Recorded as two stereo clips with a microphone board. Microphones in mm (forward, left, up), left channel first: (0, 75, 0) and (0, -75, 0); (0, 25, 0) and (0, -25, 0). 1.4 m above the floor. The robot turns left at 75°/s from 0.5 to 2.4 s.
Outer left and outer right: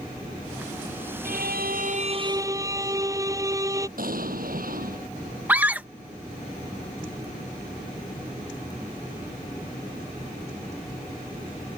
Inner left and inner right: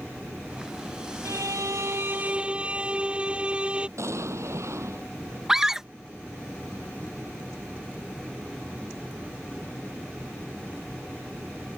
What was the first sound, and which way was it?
A violin, 70° right.